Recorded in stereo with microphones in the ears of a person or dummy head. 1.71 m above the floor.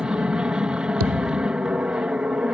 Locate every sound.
0.0 s an aircraft: 5° right (ahead or behind)
1.0 s a thud: 80° right